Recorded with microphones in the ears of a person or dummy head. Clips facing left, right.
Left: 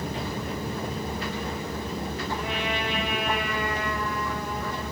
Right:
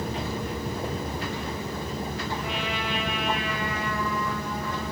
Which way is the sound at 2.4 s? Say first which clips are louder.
Left 1 dB; 50° left (ahead or behind).